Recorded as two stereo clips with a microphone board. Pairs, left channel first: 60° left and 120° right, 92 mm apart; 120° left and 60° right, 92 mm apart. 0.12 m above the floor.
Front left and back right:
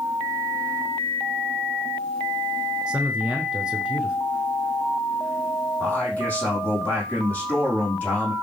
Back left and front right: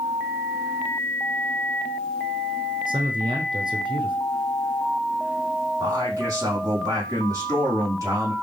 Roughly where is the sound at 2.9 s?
Ahead right.